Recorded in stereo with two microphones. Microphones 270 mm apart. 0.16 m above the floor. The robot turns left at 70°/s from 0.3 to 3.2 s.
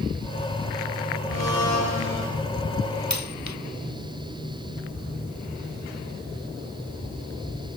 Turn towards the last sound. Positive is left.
turn(degrees=85)